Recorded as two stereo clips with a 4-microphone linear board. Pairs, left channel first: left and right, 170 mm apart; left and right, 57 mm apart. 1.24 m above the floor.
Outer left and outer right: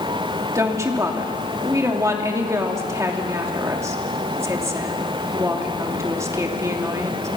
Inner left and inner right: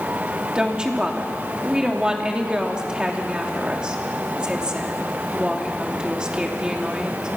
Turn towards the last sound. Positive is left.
turn(degrees=-15)  # may be behind; listen again after turning